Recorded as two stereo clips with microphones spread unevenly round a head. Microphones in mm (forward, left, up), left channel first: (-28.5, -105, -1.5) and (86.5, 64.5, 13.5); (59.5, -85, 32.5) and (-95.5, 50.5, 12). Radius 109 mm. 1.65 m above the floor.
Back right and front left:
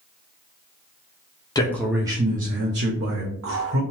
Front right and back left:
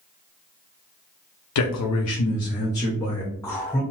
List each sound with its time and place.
1.6 s a man speaking: 50° right, 0.6 m; by 3.8 s 45° left, 1.2 m